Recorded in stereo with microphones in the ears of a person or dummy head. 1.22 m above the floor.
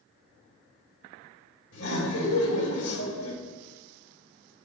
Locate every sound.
1.7 s laughter: 70° left (ahead or behind), 1.8 m